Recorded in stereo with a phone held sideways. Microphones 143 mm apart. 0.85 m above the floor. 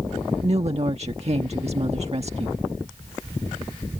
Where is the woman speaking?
50° right (ahead or behind).